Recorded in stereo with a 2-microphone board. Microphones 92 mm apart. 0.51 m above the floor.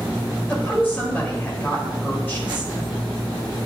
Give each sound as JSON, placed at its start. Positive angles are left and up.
{"t": 0.5, "sound": "a woman speaking", "side_deg": 20, "distance_m": 2.5}